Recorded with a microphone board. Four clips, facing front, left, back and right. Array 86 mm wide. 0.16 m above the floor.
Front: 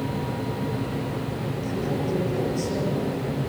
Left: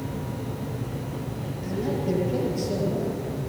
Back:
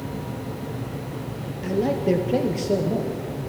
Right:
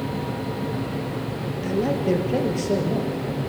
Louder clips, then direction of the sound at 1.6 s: Right 5 dB, back 7 dB; 140° right.